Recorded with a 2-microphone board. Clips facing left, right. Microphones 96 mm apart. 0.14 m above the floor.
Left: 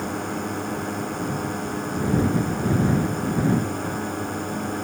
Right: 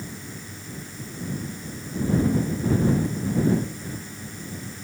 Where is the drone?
65° left (ahead or behind); by 4.8 s 60° left (ahead or behind).